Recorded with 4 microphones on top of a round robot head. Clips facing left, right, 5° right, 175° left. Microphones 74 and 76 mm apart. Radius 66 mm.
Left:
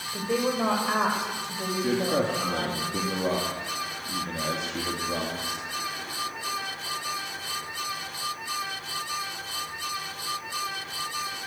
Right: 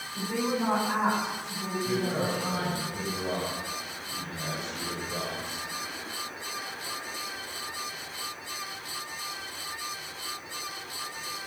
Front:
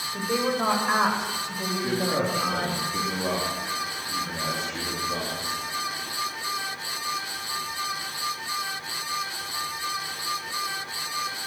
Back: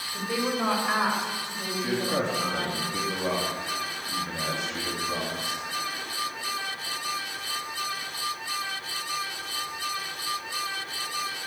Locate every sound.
0.1 s a woman speaking: 70° left, 7 m; by 2.8 s 50° left, 7 m
1.8 s a man speaking: 90° left, 3.5 m